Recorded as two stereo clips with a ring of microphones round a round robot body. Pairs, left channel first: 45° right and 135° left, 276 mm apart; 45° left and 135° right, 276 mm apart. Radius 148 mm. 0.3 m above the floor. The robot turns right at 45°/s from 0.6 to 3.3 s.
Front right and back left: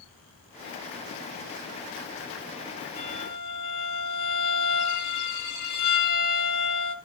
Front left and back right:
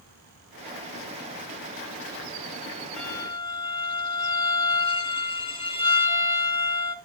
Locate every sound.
3.0 s a violin: 45° right, 2.5 m; by 7.0 s 30° right, 2.5 m